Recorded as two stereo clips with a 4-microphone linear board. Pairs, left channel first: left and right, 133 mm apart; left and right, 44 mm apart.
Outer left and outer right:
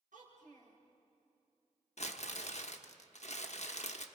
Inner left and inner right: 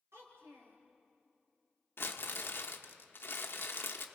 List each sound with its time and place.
0.1 s a child speaking: 75° right (ahead or behind), 7 m
2.0 s crumpling: 60° left (ahead or behind), 1.0 m